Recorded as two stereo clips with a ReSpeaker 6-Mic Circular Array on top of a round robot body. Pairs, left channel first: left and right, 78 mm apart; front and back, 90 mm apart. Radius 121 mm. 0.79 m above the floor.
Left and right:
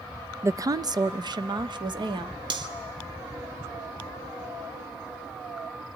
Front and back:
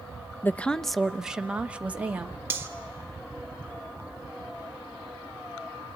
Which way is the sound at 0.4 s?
55° right.